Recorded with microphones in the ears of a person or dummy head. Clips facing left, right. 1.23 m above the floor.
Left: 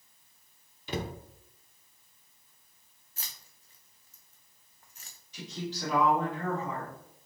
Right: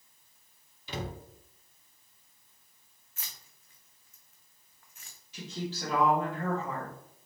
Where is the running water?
I don't hear running water.